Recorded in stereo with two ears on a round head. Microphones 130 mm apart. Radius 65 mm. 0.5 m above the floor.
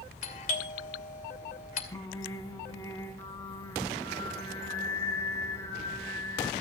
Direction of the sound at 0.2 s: 55° left (ahead or behind).